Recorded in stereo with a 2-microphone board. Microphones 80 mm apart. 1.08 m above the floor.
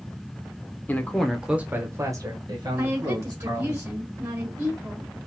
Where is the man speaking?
25° left (ahead or behind), 0.8 m; by 3.8 s 70° right (ahead or behind), 1.9 m.